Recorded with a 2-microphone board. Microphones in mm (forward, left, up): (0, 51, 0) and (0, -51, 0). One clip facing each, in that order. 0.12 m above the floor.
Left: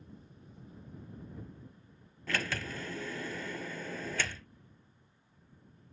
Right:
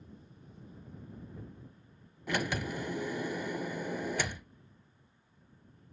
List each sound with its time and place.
2.3 s a sliding door: 15° right (ahead or behind)